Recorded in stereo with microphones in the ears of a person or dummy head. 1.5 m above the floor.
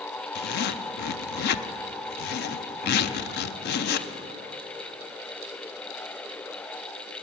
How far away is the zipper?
About 0.6 m.